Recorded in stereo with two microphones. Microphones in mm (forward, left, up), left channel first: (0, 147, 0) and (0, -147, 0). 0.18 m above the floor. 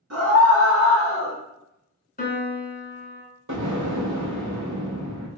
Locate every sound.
0.1 s a scream: 55° right (ahead or behind), 1.9 m; by 1.4 s 25° right (ahead or behind), 1.2 m
2.2 s a piano: 30° left (ahead or behind), 0.8 m
3.5 s an explosion: 85° right, 1.0 m